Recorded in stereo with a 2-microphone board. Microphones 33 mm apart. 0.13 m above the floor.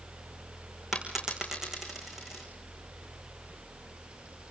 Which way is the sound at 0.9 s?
10° right (ahead or behind).